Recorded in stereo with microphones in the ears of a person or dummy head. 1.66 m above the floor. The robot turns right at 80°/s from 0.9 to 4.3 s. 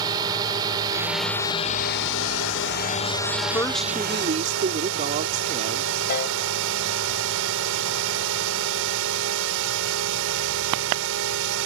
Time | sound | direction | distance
0.0 | a drone | 25° right | ?
3.5 | a woman speaking | 160° left | ?
6.1 | a piano | 50° left (ahead or behind) | ?